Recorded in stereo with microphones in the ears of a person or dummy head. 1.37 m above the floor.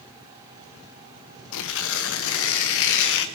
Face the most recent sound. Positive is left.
turn(degrees=65)  # may be behind; listen again after turning